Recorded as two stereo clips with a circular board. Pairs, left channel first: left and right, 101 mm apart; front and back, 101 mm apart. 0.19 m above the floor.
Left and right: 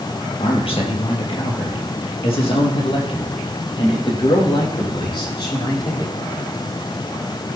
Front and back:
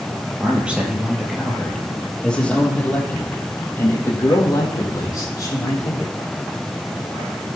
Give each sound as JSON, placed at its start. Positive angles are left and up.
{"t": 0.4, "sound": "a man speaking", "azimuth_deg": 105, "distance_m": 3.5}